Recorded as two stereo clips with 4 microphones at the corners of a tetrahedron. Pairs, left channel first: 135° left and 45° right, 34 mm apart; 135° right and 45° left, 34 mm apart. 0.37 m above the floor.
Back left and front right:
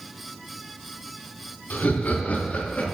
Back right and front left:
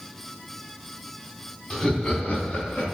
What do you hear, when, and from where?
1.7 s laughter: 160° left, 2.5 m; by 2.8 s 175° right, 4 m